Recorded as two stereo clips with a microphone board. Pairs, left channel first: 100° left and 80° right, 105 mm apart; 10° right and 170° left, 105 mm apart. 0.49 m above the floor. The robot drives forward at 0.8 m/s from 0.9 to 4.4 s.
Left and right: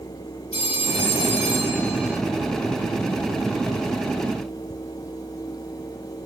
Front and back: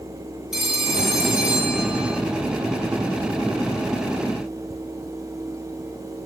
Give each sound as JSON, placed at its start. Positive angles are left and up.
{"t": 0.5, "sound": "a phone ringing", "azimuth_deg": 85, "distance_m": 7.5}